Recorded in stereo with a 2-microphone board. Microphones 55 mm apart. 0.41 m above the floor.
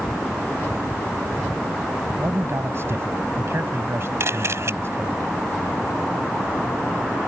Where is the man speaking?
50° right (ahead or behind).